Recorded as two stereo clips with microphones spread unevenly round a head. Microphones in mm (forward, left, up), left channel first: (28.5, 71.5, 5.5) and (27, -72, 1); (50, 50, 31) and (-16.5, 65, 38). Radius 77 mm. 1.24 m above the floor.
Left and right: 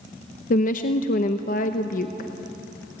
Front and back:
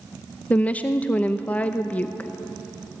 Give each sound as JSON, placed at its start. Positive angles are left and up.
{"t": 0.5, "sound": "a woman speaking", "azimuth_deg": 55, "distance_m": 0.8}